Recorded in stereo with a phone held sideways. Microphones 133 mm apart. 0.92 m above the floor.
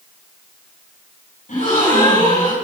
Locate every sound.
1.5 s a gasp: 70° left (ahead or behind), 7.5 m